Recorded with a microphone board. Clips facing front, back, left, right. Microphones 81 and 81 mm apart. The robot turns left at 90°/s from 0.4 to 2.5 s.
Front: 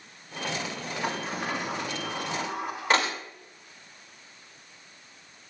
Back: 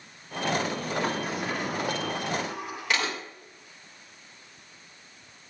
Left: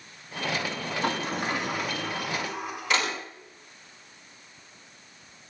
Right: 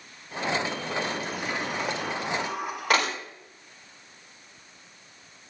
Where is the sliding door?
80° left, 6.5 m; by 3.1 s 55° right, 6.5 m.